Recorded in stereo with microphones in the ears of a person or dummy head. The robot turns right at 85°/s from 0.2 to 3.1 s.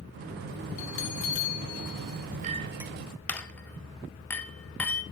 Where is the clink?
40° right (ahead or behind), 1.0 m; by 5.0 s 10° left (ahead or behind), 1.0 m.